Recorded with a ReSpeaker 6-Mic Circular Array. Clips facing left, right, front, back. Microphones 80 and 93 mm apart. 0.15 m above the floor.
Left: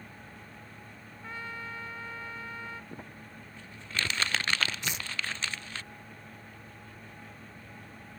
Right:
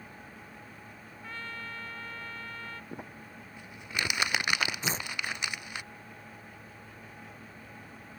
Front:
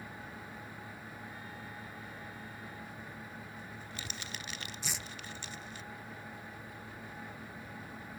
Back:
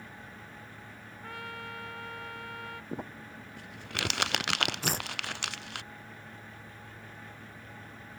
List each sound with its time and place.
1.2 s a trumpet: 165° left
2.9 s crumpling: 165° right
4.8 s tearing paper: 140° right